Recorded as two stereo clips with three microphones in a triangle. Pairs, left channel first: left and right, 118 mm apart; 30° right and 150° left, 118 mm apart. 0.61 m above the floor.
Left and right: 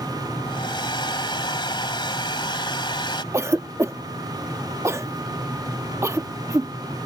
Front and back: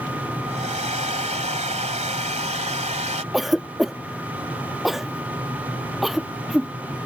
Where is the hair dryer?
135° left.